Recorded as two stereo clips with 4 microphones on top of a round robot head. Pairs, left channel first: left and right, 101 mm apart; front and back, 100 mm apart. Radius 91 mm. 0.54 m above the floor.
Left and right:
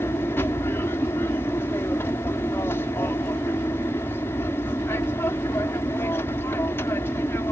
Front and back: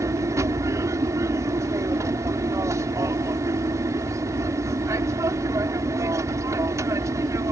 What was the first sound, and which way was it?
An aircraft, 145° left.